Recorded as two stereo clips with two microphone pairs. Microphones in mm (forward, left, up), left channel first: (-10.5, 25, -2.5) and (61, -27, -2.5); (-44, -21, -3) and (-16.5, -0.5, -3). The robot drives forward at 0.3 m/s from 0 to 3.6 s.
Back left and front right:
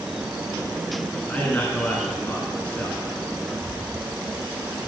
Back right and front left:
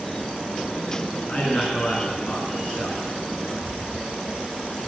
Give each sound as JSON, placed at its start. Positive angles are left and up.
{"t": 1.3, "sound": "a man speaking", "azimuth_deg": -155, "distance_m": 1.8}